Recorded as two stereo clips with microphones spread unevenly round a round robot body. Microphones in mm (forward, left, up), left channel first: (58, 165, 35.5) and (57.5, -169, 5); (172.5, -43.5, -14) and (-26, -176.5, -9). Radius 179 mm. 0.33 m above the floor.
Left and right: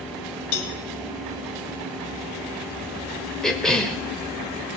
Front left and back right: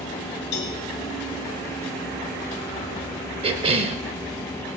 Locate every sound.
0.5 s a cowbell: 85° left, 1.5 m
3.4 s a cough: 170° right, 0.9 m